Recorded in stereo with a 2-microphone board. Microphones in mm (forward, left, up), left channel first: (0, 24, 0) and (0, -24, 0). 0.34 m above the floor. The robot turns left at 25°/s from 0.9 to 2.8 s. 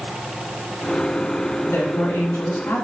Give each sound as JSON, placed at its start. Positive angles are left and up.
{"t": 1.7, "sound": "a man speaking", "side_deg": 65, "distance_m": 3.0}